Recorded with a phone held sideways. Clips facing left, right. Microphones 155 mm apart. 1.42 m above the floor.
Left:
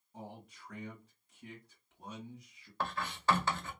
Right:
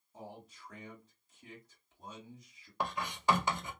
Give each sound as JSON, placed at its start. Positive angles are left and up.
{"t": 0.1, "sound": "a man speaking", "side_deg": 70, "distance_m": 2.0}
{"t": 2.8, "sound": "writing", "side_deg": -15, "distance_m": 0.7}